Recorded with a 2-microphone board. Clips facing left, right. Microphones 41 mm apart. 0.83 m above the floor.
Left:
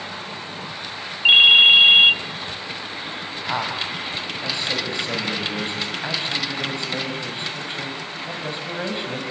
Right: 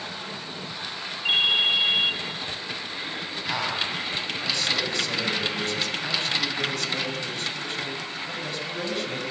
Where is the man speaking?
25° left (ahead or behind), 5.5 m.